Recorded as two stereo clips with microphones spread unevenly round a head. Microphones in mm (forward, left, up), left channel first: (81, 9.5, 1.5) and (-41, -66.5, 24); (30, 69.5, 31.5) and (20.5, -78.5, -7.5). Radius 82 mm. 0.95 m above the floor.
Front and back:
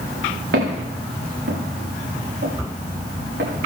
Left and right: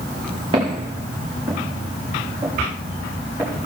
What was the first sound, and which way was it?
Footsteps, 155° right.